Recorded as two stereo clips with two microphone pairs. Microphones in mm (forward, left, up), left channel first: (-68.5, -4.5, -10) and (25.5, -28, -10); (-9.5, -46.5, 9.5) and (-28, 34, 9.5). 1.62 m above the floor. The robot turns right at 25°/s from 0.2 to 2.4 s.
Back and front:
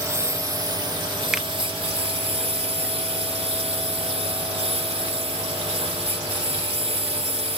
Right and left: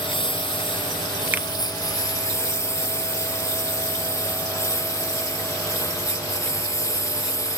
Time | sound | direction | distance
0.0 | a lawn mower | 75° right | ?
1.3 | a finger snap | 65° left | ?